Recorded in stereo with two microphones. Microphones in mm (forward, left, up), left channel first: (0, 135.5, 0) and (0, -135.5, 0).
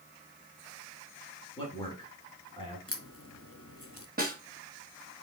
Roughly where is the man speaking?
Centre.